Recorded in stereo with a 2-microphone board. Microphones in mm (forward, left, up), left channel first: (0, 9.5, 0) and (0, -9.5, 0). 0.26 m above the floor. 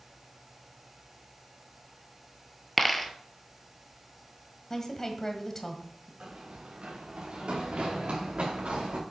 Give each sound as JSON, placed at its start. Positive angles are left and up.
{"t": 2.8, "sound": "a dropped coin", "side_deg": 5, "distance_m": 0.8}
{"t": 4.7, "sound": "a woman speaking", "side_deg": 25, "distance_m": 1.5}
{"t": 6.2, "sound": "running footsteps", "side_deg": -70, "distance_m": 4.5}